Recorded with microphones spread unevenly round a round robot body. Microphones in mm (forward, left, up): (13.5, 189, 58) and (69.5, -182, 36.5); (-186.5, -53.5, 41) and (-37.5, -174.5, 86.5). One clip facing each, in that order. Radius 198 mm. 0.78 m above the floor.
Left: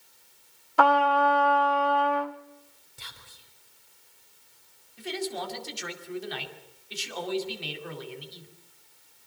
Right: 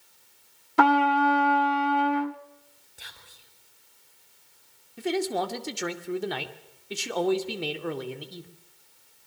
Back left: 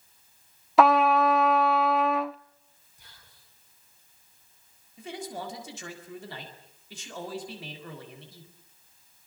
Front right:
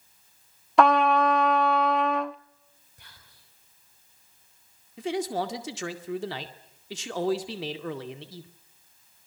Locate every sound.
0.8 s a trumpet: 135° right, 0.8 m
3.0 s whispering: 15° left, 7 m
5.0 s a man speaking: 50° right, 2.5 m